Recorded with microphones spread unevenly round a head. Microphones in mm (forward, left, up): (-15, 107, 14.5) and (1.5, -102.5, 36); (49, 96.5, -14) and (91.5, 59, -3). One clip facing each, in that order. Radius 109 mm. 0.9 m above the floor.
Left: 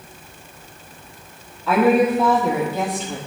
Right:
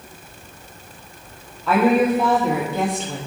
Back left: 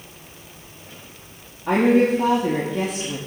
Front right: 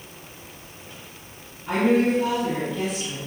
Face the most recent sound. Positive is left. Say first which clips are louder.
# left 1 dB, back left 3 dB
turn(degrees=180)